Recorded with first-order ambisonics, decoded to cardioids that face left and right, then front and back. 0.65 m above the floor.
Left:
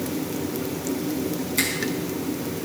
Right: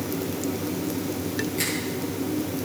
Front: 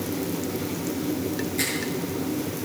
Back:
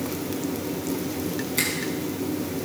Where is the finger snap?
135° left, 5 m.